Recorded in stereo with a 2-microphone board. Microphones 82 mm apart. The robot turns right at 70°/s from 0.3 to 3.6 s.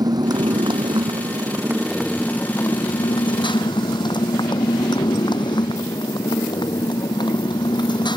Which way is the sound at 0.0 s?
120° right.